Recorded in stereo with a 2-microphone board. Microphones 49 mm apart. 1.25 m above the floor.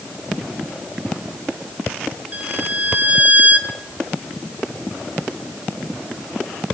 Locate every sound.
2.3 s a violin: 30° right (ahead or behind), 1.2 m